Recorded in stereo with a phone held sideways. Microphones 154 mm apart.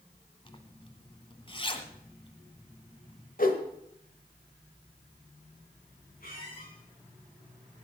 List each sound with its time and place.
0.5 s a zipper: 35° left (ahead or behind), 1.1 m
3.4 s a whoosh: 65° left (ahead or behind), 1.3 m
6.2 s a squeak: 70° left (ahead or behind), 7 m